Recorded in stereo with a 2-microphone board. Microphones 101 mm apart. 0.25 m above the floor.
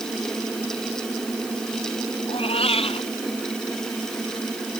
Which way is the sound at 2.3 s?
75° left (ahead or behind).